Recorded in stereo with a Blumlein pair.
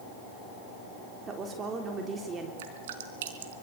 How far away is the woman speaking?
About 3.5 m.